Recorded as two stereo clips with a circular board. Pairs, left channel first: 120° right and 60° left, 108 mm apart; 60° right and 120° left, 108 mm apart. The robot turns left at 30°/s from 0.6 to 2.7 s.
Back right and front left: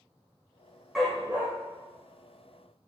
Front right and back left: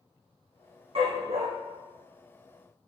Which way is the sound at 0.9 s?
150° left.